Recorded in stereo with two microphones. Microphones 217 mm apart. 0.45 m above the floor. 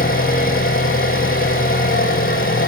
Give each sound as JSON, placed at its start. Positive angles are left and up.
{"t": 0.0, "sound": "an engine running", "side_deg": 40, "distance_m": 5.0}